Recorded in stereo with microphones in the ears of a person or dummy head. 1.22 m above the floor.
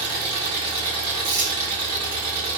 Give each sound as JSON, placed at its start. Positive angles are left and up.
{"t": 0.0, "sound": "an engine running", "side_deg": -25, "distance_m": 1.4}
{"t": 1.2, "sound": "crumpling", "side_deg": -20, "distance_m": 0.8}